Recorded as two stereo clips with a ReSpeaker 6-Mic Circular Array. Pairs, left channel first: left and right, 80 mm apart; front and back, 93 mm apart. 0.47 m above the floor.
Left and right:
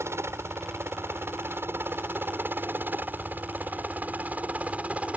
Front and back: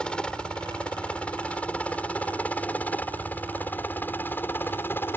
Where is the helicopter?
75° right; by 5.2 s 35° right.